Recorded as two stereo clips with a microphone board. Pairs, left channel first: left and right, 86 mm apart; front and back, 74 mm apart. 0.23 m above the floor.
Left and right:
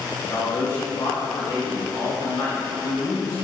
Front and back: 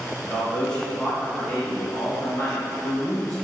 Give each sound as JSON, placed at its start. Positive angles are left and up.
{"t": 0.2, "sound": "a man speaking", "azimuth_deg": 70, "distance_m": 1.9}